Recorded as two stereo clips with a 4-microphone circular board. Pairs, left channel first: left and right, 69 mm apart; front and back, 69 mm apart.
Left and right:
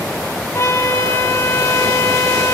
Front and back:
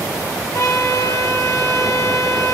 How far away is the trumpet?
About 3.5 m.